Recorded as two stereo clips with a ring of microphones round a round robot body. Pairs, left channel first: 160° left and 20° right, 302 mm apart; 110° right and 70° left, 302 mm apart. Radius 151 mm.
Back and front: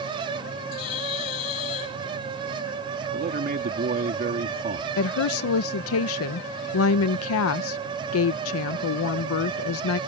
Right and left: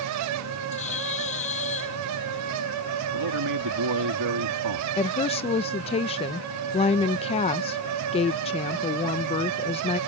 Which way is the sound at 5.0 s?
Straight behind.